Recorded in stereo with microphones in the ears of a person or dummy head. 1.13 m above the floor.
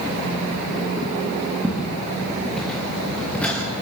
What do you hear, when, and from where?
1.6 s footsteps: 5° right (ahead or behind), 6.5 m; by 3.6 s 5° left (ahead or behind), 6.5 m